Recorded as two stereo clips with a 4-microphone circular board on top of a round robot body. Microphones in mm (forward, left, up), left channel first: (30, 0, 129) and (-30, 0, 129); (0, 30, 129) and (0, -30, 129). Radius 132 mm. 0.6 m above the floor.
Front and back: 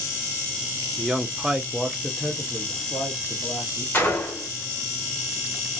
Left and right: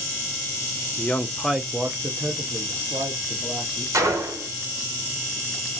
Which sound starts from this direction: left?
A man speaking, at 1.0 s.